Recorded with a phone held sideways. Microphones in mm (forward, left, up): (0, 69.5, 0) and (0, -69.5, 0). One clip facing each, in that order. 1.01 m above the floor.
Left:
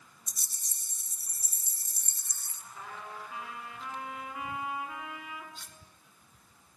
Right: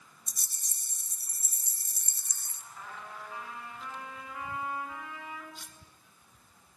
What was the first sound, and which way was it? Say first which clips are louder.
A rattle: even; 50° right (ahead or behind).